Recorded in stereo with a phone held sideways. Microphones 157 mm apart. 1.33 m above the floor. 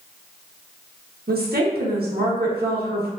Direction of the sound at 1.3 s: 80° right.